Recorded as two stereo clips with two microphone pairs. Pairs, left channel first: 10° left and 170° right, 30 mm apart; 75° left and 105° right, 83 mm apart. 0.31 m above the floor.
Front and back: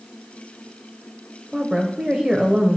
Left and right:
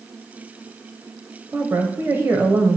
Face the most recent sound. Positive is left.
turn(degrees=-125)